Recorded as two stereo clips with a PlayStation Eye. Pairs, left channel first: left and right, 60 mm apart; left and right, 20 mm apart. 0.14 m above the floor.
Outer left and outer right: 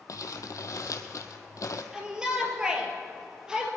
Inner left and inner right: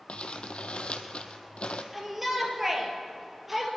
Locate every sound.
0.1 s crumpling: 70° left (ahead or behind), 1.1 m
1.9 s a shout: 15° right (ahead or behind), 3.5 m